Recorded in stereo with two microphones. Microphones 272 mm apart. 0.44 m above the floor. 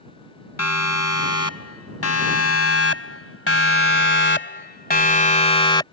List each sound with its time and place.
0.6 s a siren: 70° left (ahead or behind); by 5.8 s 15° left (ahead or behind)